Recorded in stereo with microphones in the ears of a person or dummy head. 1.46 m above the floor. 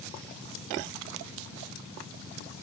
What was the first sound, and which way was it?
Only background noise.